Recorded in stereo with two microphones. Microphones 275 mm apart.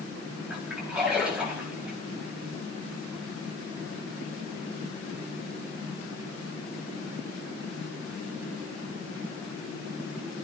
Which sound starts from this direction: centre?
A splash, at 0.5 s.